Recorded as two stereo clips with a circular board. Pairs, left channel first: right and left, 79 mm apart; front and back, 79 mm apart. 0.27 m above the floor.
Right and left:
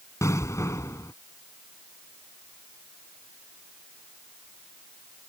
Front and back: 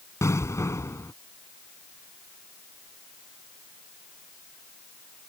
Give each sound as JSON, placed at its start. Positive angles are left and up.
{"t": 0.2, "sound": "an explosion", "azimuth_deg": -45}